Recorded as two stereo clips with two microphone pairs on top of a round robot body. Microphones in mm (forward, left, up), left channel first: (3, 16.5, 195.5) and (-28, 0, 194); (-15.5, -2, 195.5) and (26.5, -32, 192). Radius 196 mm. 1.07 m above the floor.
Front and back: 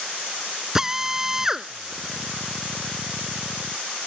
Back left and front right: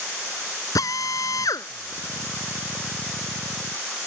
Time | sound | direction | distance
0.8 | a drill | 130° left | ?